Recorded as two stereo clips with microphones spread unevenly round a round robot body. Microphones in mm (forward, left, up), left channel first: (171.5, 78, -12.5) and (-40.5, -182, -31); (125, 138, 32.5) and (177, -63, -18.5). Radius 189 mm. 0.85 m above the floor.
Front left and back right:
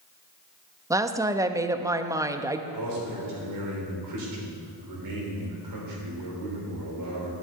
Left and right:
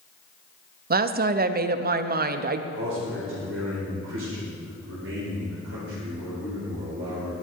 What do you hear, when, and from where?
0.9 s a woman speaking: 50° right, 0.7 m
2.7 s a man speaking: 110° right, 3.5 m